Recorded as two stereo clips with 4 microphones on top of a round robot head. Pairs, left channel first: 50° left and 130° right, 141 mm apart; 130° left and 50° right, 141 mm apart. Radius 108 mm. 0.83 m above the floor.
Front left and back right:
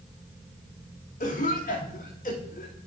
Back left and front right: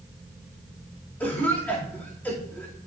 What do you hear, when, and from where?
1.2 s a cough: 55° left, 2.5 m